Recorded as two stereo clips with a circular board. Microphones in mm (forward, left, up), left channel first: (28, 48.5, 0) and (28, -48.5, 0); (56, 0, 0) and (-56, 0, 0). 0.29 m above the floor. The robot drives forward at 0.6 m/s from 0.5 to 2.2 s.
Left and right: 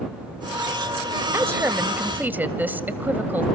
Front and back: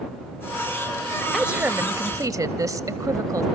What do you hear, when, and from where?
1.3 s a woman speaking: 100° right, 0.9 m; by 3.5 s 145° right, 1.1 m